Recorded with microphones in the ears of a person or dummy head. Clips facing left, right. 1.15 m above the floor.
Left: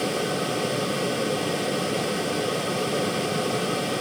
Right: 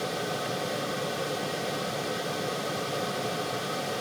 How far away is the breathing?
No breathing in this recording.